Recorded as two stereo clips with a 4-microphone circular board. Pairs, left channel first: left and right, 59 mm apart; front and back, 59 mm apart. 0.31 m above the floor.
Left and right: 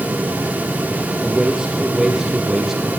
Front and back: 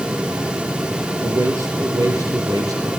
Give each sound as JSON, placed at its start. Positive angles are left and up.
{"t": 1.2, "sound": "a man speaking", "azimuth_deg": -165, "distance_m": 5.5}